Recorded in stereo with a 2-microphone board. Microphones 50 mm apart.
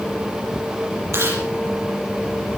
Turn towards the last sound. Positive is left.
turn(degrees=-65)  # may be behind; listen again after turning